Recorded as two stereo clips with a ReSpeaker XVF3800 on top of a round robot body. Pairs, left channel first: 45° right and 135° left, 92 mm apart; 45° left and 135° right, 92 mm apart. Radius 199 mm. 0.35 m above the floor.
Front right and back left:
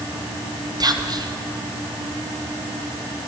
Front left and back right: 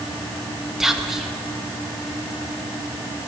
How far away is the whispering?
About 1.6 m.